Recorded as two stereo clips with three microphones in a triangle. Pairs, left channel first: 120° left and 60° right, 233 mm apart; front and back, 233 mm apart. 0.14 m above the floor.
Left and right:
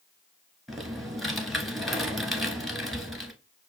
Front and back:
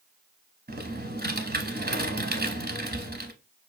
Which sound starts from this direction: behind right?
Typing on a keyboard, at 0.7 s.